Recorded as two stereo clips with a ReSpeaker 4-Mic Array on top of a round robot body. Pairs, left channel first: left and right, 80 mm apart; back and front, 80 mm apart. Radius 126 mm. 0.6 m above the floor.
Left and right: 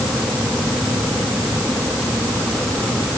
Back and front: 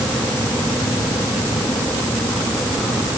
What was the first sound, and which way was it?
Only background noise.